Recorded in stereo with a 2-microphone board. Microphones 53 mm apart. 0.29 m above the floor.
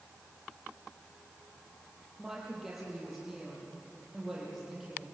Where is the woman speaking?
10° right (ahead or behind), 7.5 m; by 5.0 s 5° right (ahead or behind), 9 m.